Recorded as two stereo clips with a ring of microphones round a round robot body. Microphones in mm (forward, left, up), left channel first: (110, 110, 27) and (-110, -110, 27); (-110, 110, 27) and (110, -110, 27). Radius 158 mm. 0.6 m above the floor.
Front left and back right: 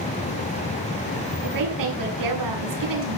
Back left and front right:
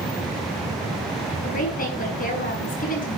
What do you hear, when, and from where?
1.4 s a woman speaking: 160° right, 7 m